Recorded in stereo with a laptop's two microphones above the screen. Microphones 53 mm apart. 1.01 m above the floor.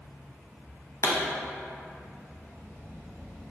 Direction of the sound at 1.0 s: 70° left (ahead or behind).